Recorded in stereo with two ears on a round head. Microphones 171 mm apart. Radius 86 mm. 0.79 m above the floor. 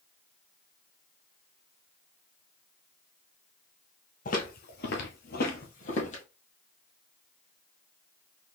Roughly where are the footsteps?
Left.